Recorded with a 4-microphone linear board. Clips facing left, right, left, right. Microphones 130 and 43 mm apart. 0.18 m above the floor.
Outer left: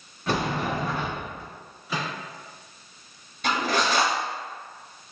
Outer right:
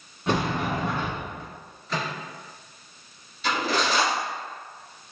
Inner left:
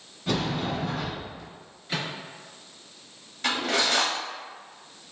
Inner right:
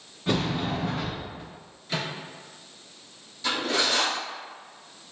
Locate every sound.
0.3 s a sliding door: 20° right (ahead or behind), 1.5 m
1.9 s a microwave: 10° left (ahead or behind), 1.8 m
3.4 s cutlery clinking: 55° left (ahead or behind), 1.5 m